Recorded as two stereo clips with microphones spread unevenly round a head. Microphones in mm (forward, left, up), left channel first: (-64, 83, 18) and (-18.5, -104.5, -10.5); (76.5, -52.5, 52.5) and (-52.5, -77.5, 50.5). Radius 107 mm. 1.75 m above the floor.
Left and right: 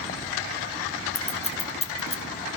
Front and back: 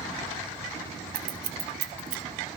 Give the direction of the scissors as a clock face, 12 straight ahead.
7 o'clock.